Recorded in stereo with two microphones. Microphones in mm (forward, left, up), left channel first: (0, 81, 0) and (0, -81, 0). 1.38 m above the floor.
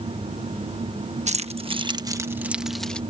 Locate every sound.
1.3 s keys jangling: 45° right (ahead or behind); by 3.0 s 5° left (ahead or behind)